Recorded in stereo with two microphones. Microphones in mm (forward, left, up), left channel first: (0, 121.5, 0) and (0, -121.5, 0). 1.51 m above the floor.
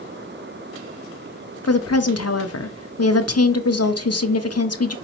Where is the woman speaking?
85° left, 0.6 m.